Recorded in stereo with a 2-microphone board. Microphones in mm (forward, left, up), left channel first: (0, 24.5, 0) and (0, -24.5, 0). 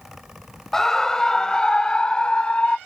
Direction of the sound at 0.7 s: 5° left (ahead or behind).